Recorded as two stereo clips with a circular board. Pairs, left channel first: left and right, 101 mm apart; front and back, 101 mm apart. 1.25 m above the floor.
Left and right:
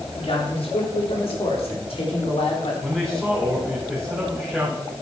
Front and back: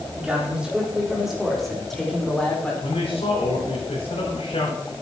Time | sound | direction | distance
0.2 | a man speaking | 100° left | 3.5 m
2.8 | a man speaking | 5° right | 4 m